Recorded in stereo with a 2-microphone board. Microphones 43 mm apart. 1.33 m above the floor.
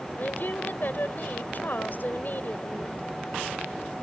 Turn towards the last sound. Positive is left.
turn(degrees=45)  # may be behind; listen again after turning